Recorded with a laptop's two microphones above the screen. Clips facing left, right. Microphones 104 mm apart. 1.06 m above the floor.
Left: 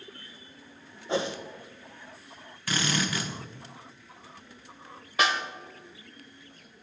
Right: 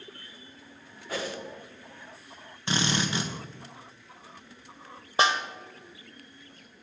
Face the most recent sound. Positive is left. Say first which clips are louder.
# right 2 dB
turn(degrees=-30)  # may be behind; listen again after turning